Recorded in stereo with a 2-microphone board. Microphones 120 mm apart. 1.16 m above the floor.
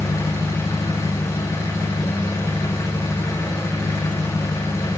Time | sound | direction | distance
0.0 | an engine running | 20° left (ahead or behind) | 0.8 m